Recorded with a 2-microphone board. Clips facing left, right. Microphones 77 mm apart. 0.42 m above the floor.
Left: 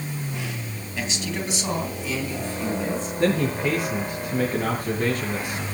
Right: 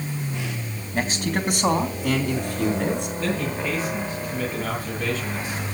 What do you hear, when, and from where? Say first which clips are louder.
0.9 s a man speaking: right 5 dB; 45° right (ahead or behind), 3 m; by 3.1 s 70° right (ahead or behind), 4.5 m
3.2 s a man speaking: left 4 dB; 65° left (ahead or behind), 6 m